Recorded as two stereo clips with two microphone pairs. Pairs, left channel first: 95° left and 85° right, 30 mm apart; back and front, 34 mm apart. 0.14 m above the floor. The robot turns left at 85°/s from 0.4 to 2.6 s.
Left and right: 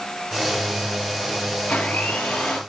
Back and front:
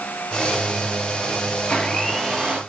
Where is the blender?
130° left, 3.5 m; by 2.6 s 50° left, 3.5 m.